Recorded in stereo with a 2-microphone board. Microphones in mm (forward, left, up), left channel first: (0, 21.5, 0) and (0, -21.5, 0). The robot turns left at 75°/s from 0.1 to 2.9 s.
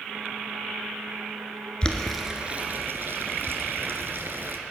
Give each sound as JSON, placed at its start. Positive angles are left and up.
{"t": 1.8, "sound": "boiling", "side_deg": 20, "distance_m": 1.2}